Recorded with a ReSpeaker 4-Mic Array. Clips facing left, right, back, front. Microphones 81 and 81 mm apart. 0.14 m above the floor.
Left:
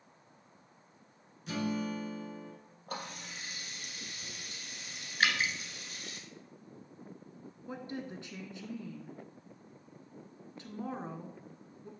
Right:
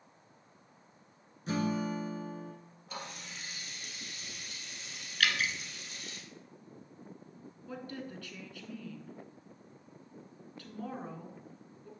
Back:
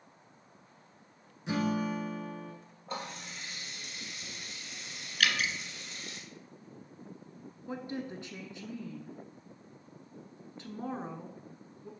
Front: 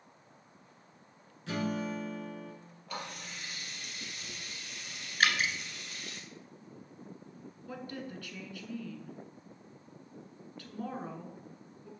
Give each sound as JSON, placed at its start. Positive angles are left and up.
{"t": 1.5, "sound": "a guitar", "azimuth_deg": -120, "distance_m": 1.5}
{"t": 2.9, "sound": "a running tap", "azimuth_deg": 120, "distance_m": 2.5}
{"t": 5.2, "sound": "dripping", "azimuth_deg": 40, "distance_m": 1.1}
{"t": 7.7, "sound": "a woman speaking", "azimuth_deg": 135, "distance_m": 1.2}